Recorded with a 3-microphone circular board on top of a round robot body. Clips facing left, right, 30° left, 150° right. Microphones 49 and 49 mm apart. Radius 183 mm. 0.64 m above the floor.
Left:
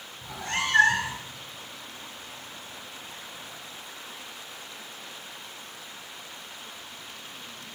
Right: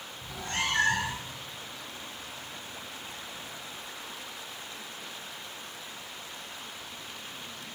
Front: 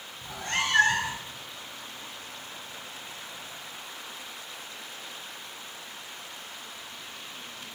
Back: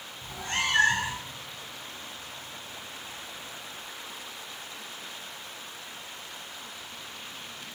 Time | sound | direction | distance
0.2 | a cat meowing | 70° left | 1.5 m